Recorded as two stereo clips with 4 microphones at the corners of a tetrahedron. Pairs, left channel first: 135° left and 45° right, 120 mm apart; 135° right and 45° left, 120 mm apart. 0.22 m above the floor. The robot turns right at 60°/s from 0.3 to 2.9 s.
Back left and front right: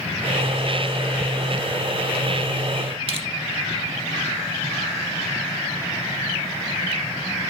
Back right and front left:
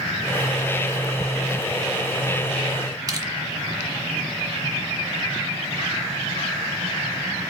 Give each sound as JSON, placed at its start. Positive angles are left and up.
{"t": 3.1, "sound": "crushing", "azimuth_deg": -10, "distance_m": 1.7}